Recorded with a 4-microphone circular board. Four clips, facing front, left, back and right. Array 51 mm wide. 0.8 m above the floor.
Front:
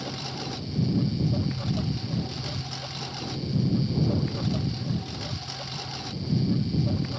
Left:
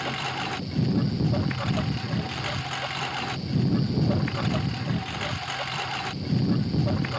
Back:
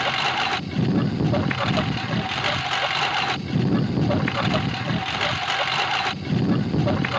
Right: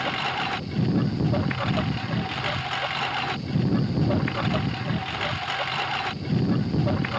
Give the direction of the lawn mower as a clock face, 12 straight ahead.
6 o'clock.